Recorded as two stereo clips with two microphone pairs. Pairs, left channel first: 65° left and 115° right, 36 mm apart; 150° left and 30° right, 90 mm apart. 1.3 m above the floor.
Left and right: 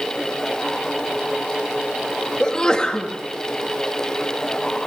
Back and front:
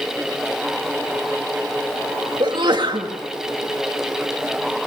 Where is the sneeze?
Straight ahead, 1.9 m.